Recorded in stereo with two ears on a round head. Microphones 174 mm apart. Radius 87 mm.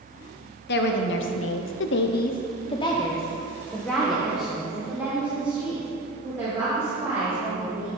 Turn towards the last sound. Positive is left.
turn(degrees=-15)  # may be behind; listen again after turning